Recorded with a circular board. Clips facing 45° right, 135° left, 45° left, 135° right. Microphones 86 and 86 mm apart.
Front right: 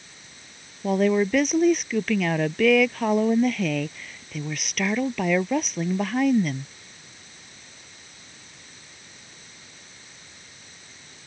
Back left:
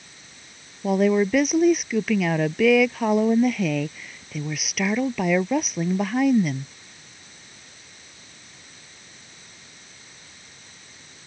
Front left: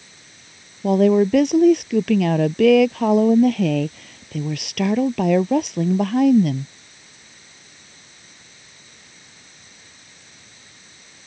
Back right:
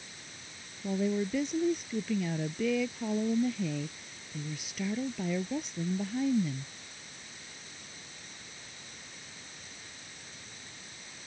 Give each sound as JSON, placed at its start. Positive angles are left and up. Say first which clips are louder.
{"t": 0.8, "sound": "a woman speaking", "louder": "back left 1 dB, front left 16 dB", "azimuth_deg": 50}